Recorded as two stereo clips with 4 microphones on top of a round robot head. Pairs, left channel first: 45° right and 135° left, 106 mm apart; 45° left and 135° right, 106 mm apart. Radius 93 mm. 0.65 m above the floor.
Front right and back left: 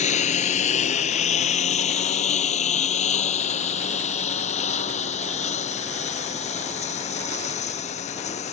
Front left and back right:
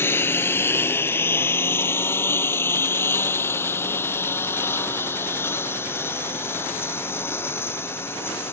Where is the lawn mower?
25° right.